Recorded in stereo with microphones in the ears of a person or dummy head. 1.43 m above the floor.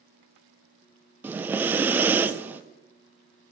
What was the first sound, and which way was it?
Breathing, 15° right (ahead or behind).